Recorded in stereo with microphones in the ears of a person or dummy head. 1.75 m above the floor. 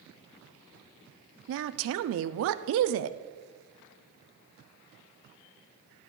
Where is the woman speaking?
65° right (ahead or behind), 0.5 m.